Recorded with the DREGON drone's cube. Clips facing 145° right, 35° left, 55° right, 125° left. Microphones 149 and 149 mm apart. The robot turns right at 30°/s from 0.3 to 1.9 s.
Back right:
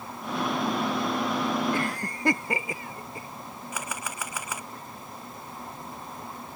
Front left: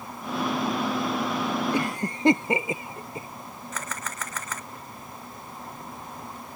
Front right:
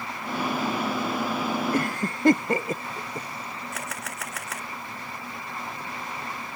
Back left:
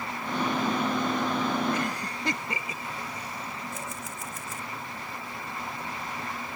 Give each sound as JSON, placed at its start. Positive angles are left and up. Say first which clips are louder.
{"t": 1.7, "sound": "a cough", "louder": "front left 3 dB, front right 4 dB", "azimuth_deg": -35}
{"t": 3.7, "sound": "a camera shutter", "louder": "even, front right 2 dB", "azimuth_deg": -65}